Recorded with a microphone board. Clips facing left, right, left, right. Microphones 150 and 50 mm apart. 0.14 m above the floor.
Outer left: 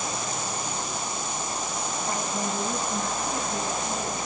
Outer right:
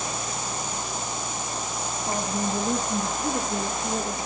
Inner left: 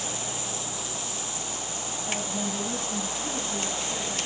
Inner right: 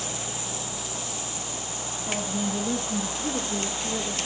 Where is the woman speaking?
25° right (ahead or behind), 3.5 m; by 4.3 s 60° right (ahead or behind), 4 m.